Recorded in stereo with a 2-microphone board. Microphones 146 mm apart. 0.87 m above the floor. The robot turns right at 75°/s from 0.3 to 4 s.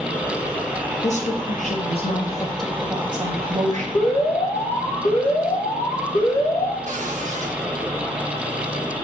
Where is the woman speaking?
60° left, 1.3 m; by 3.9 s 90° right, 1.3 m.